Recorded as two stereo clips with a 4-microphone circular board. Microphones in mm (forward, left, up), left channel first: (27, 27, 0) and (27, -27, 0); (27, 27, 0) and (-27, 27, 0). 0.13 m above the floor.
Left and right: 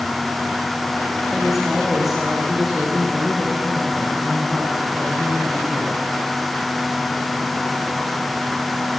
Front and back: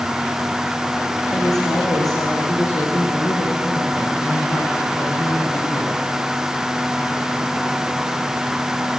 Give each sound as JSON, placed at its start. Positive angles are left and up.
{"t": 1.3, "sound": "a woman speaking", "azimuth_deg": -5, "distance_m": 6.5}